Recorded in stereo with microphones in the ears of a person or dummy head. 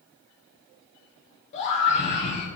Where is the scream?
35° left (ahead or behind), 1.0 m.